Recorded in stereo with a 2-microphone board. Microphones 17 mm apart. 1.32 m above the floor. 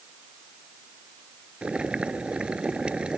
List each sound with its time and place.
1.6 s boiling: 75° right (ahead or behind)